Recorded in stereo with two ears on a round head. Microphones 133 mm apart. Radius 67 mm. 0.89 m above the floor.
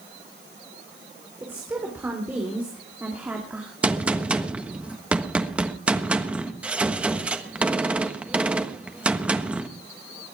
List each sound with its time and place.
1.4 s a woman speaking: 15° right (ahead or behind), 3.5 m; by 3.7 s 10° right (ahead or behind), 2 m
3.8 s a gunshot: 5° right (ahead or behind), 1.2 m